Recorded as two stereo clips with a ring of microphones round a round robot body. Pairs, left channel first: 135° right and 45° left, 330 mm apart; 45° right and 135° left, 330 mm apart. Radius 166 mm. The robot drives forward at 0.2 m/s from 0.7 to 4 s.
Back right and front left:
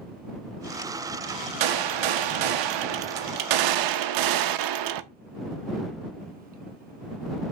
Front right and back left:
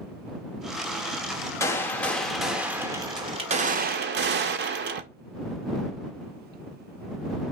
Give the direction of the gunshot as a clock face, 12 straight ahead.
11 o'clock.